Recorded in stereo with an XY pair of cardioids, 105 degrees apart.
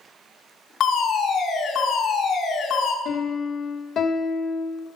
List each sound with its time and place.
0.8 s a fire alarm: 70° left, 3.5 m
3.0 s a piano: 60° left, 1.8 m